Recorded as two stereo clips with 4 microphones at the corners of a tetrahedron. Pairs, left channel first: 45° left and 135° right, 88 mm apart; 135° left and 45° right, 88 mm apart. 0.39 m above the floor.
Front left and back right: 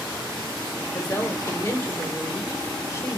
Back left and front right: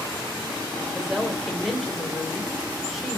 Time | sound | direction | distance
0.9 | a woman speaking | 45° left | 0.8 m